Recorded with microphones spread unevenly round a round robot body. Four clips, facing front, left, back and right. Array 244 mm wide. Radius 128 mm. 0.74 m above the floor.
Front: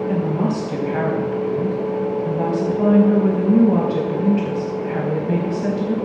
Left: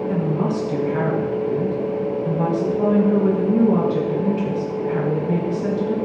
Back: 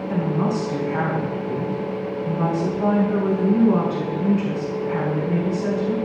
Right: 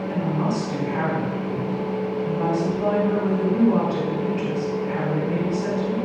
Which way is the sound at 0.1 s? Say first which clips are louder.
Left 1 dB, back 2 dB; 30° left.